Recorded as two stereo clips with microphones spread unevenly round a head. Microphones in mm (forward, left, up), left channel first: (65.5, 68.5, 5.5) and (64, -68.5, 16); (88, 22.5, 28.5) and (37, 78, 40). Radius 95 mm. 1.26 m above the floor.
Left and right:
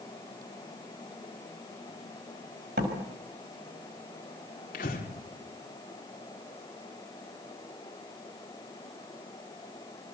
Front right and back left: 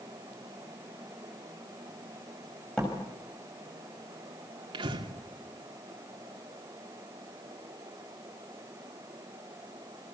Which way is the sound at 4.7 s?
140° left.